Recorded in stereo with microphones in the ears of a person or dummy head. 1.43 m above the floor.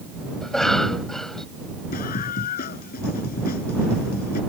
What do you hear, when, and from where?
0.4 s a cough: centre (ahead or behind)
1.9 s a scream: 45° left (ahead or behind)